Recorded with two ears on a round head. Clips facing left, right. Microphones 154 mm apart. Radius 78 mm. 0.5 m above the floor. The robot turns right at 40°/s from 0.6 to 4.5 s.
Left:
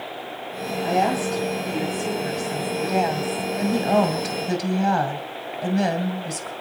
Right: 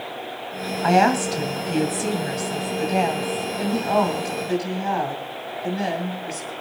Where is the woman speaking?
85° right, 2.5 m; by 6.5 s 60° left, 2.5 m.